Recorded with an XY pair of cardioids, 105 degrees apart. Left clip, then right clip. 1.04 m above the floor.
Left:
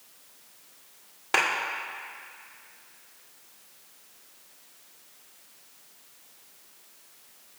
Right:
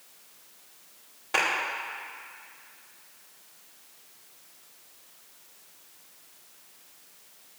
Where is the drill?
No drill in this recording.